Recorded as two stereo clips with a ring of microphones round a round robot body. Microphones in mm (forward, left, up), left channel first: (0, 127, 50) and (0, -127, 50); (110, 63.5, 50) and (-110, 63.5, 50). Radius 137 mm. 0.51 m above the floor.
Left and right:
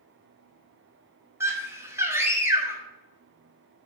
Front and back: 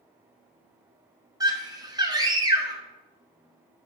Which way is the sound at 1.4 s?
150° right.